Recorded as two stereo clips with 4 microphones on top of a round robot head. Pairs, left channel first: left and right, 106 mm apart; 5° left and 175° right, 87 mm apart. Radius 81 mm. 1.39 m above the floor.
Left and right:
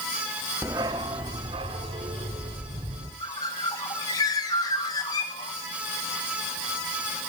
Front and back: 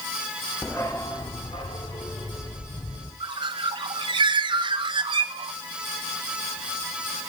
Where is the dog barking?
60° right, 0.9 m; by 3.1 s 55° right, 3 m.